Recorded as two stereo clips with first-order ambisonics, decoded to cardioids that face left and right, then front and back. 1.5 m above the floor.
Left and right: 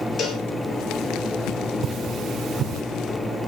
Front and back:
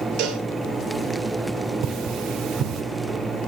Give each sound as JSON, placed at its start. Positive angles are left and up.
{"t": 0.2, "sound": "a cowbell", "azimuth_deg": 150, "distance_m": 4.0}
{"t": 1.8, "sound": "cutlery clinking", "azimuth_deg": -145, "distance_m": 3.0}